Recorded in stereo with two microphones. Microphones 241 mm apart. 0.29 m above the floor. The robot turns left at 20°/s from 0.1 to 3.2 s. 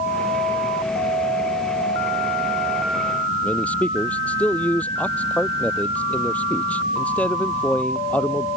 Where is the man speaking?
5° left (ahead or behind).